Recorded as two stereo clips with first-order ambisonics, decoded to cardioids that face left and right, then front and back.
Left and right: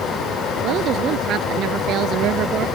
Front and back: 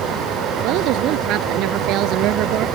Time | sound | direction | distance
0.6 | a woman speaking | 140° right | ?